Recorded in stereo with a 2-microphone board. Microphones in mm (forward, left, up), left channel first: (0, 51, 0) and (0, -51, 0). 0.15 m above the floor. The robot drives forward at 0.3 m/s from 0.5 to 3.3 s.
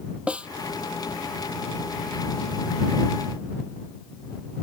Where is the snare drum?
10° right (ahead or behind).